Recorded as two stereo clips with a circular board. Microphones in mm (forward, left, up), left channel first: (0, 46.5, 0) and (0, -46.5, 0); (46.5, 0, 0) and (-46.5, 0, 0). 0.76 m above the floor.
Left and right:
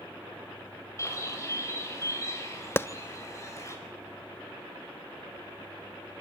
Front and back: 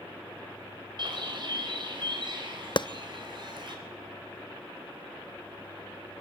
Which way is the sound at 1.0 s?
150° left.